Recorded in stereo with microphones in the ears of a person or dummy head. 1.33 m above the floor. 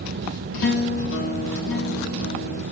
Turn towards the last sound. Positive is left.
turn(degrees=75)  # may be behind; listen again after turning